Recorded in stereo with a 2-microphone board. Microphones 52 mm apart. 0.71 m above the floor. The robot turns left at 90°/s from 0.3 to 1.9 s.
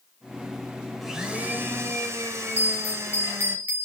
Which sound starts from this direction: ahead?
A blender, at 1.0 s.